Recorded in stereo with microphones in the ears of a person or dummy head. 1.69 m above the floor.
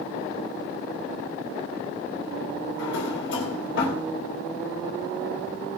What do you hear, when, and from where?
2.8 s a drawer: 55° left (ahead or behind), 3.5 m